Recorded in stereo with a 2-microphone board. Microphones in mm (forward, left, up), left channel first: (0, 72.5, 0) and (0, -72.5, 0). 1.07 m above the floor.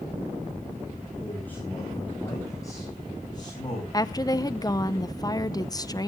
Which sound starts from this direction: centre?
A man speaking, at 1.2 s.